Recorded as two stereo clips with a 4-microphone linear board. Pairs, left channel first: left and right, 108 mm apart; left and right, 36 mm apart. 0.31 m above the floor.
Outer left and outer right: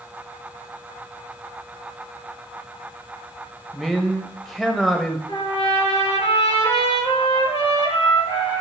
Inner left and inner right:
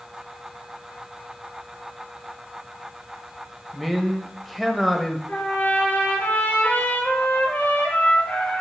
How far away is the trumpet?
About 5.5 m.